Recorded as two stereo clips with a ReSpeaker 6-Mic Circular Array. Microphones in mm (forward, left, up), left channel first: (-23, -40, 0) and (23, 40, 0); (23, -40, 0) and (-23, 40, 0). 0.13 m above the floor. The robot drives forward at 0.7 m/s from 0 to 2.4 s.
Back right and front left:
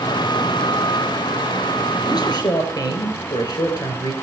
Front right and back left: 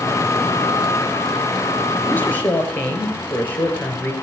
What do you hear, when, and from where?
2.1 s a man speaking: 120° right, 3 m; by 4.1 s 125° right, 3 m